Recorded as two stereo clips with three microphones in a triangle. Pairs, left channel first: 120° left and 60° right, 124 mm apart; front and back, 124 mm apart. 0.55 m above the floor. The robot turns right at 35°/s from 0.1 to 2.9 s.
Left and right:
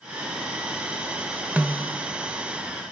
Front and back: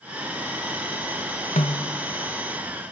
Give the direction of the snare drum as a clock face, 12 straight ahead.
11 o'clock.